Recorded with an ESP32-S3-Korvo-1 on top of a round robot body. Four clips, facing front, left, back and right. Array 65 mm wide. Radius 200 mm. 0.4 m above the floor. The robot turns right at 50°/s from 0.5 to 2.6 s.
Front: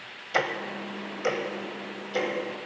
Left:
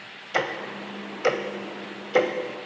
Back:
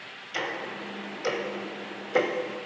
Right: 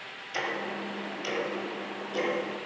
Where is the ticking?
40° left, 1.0 m; by 2.3 s 130° left, 1.0 m.